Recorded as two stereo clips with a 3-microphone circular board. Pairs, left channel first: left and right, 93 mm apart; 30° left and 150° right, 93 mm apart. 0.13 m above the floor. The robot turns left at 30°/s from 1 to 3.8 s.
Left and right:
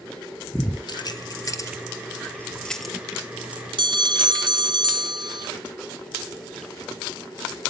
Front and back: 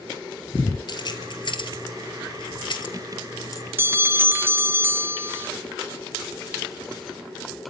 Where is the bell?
90° right, 0.5 m.